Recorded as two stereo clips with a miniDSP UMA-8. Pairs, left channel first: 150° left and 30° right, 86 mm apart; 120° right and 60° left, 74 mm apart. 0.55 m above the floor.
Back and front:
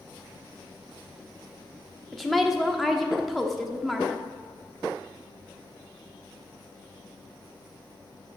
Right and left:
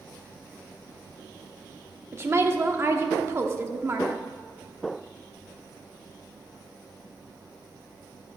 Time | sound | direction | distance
2.1 | a woman speaking | 60° left | 0.9 m